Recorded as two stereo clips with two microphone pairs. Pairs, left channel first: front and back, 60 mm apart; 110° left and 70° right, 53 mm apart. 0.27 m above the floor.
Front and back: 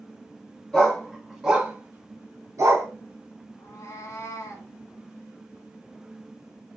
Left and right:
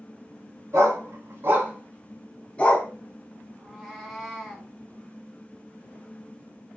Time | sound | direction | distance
0.7 | a dog barking | 75° right | 1.3 m
3.6 | a cat meowing | 15° left | 0.9 m